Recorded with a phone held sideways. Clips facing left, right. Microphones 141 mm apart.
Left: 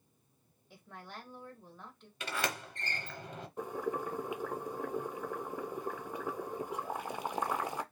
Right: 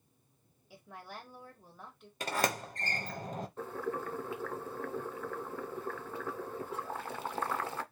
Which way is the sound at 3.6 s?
15° left (ahead or behind).